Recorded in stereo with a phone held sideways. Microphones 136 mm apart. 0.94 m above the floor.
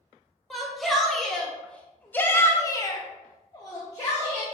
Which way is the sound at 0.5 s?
Centre (ahead or behind).